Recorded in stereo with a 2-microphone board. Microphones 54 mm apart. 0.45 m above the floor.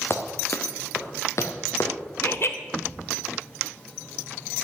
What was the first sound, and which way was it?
Running footsteps, 40° left (ahead or behind).